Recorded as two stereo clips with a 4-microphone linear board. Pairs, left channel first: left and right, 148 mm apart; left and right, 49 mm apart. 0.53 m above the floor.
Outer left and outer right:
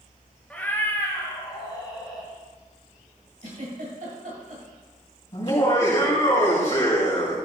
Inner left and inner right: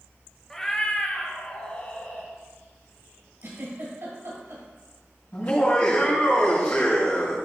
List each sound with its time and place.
0.5 s a cat meowing: 10° left (ahead or behind), 0.9 m; by 2.3 s 30° left (ahead or behind), 2 m
3.4 s a giggle: 70° right (ahead or behind), 2 m
5.3 s laughter: 40° left (ahead or behind), 3 m